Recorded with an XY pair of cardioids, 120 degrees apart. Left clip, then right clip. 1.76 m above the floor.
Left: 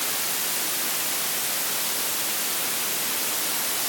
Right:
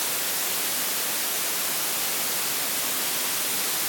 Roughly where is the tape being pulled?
No tape being pulled in this recording.